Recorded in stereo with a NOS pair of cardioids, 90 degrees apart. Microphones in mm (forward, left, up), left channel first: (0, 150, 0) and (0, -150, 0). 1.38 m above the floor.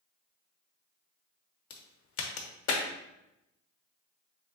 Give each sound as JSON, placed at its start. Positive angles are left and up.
{"t": 1.7, "sound": "a crack", "azimuth_deg": 50, "distance_m": 0.9}